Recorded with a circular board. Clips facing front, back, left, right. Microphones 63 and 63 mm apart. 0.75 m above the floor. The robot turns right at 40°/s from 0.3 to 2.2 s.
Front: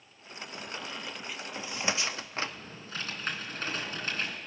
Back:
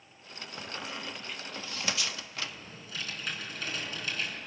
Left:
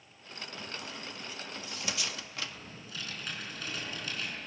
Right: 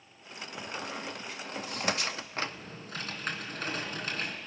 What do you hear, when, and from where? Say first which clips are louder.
0.6 s a squeak: back 1 dB, right 6 dB; 115° right, 0.6 m; by 2.5 s 50° right, 0.6 m
2.4 s typing on a keyboard: front 4 dB, right 6 dB; 50° right, 3 m